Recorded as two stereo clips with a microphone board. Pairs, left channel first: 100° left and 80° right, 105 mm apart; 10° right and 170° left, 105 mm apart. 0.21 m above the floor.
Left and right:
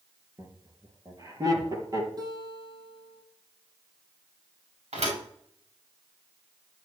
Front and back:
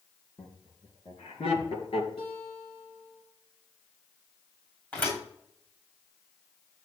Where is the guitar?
30° right, 5.5 m.